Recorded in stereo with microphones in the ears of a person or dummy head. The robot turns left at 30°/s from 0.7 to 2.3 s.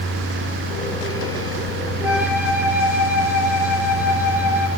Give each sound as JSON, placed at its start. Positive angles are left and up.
{"t": 2.0, "sound": "a flute", "side_deg": -5, "distance_m": 2.0}